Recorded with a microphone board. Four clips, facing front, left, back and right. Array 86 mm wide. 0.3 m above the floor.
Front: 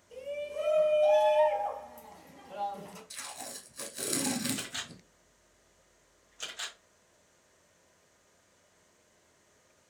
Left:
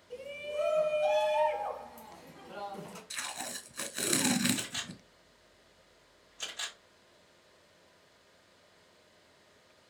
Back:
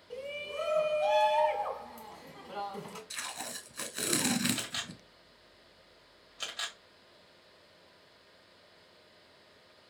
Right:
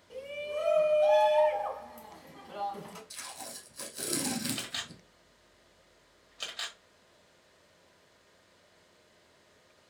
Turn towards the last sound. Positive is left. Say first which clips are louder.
# left 1 dB, back 1 dB
turn(degrees=-130)